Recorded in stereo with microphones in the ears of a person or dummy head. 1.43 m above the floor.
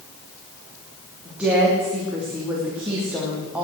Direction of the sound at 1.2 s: 10° right (ahead or behind).